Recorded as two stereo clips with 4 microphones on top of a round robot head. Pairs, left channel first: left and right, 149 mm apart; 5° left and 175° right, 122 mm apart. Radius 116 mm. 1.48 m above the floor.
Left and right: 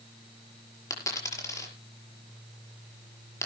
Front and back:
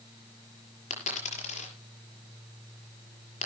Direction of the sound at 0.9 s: 20° left.